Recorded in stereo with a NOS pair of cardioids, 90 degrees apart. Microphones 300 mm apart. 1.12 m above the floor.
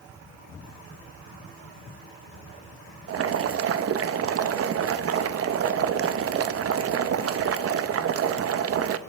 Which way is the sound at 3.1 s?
50° right.